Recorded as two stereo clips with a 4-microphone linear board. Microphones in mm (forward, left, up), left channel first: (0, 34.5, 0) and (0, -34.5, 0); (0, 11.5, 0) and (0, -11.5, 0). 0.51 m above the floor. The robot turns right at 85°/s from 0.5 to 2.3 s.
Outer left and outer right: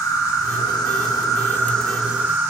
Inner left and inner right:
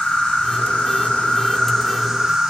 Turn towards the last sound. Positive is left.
turn(degrees=-145)